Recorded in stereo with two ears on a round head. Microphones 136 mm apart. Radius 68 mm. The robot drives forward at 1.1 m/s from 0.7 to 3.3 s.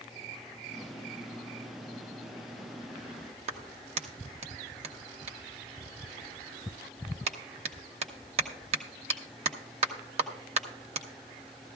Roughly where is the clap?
Right.